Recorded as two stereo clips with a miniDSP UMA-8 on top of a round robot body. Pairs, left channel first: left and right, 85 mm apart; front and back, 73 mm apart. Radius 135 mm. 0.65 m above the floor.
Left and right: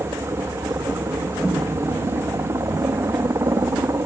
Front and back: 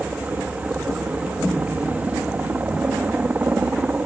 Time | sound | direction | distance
0.0 | a helicopter | 125° right | ?